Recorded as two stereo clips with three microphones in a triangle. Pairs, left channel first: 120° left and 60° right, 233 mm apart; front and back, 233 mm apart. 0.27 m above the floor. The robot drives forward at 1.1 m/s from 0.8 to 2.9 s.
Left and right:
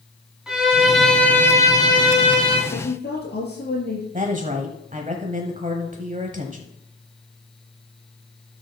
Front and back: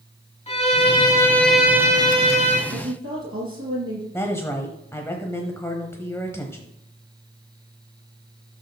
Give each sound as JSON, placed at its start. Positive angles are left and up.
{"t": 0.5, "sound": "a violin", "azimuth_deg": 25, "distance_m": 1.7}
{"t": 2.7, "sound": "a woman speaking", "azimuth_deg": 160, "distance_m": 5.0}
{"t": 4.1, "sound": "a woman speaking", "azimuth_deg": -70, "distance_m": 1.1}